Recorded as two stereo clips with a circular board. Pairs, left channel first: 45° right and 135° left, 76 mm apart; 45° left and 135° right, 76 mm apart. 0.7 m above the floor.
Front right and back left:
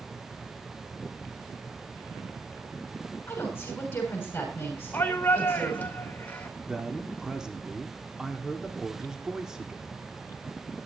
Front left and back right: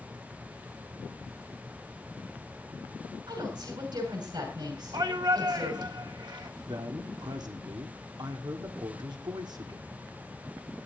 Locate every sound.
3.3 s a woman speaking: 110° right, 6 m
4.9 s a shout: 115° right, 2.5 m
6.6 s a man speaking: 145° right, 1.7 m